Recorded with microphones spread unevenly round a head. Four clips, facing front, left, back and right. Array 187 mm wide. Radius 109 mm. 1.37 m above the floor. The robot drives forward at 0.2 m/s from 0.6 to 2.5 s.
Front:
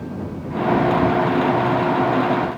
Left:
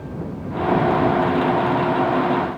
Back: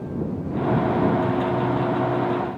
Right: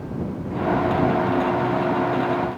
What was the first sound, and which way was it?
Only background noise.